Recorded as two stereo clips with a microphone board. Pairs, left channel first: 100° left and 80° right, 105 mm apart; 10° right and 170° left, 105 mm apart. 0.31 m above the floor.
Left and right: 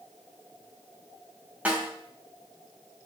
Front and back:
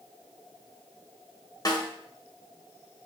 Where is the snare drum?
15° right, 1.8 m.